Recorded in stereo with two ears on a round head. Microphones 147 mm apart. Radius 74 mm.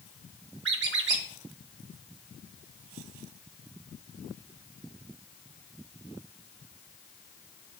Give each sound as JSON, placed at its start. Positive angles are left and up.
{"t": 0.7, "sound": "a squeak", "side_deg": -80, "distance_m": 0.9}